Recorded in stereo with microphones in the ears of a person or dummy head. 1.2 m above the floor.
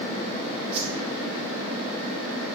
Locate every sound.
0.7 s a whoosh: 35° right (ahead or behind), 1.6 m